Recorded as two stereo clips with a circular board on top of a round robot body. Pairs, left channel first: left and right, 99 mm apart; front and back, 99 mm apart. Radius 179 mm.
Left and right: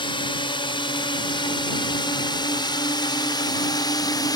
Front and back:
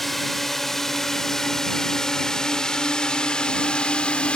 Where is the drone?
85° left; by 4.4 s 75° left.